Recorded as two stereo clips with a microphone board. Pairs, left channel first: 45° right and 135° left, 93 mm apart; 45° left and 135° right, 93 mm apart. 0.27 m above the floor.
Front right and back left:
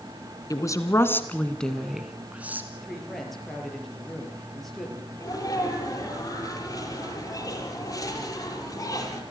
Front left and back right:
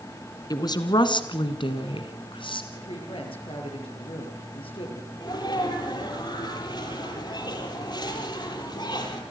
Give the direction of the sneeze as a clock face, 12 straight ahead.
12 o'clock.